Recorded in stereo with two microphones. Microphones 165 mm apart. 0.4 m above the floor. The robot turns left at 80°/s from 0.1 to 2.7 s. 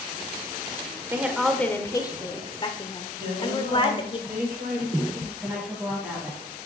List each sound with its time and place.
1.1 s a woman speaking: 155° right, 1.0 m; by 4.2 s 80° left, 1.0 m
3.2 s a woman speaking: 65° right (ahead or behind), 3 m
5.4 s a woman speaking: 5° right (ahead or behind), 3.5 m